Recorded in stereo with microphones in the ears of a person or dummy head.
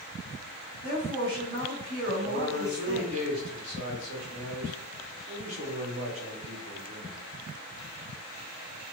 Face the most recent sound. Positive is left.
turn(degrees=-45)  # may be behind; listen again after turning